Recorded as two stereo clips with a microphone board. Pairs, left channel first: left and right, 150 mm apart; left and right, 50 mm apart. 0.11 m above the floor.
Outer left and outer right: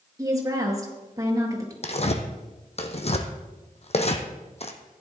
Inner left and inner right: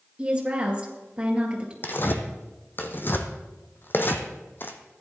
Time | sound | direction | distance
0.2 | a woman speaking | 25° right (ahead or behind) | 2 m
1.8 | tearing paper | 45° left (ahead or behind) | 1.1 m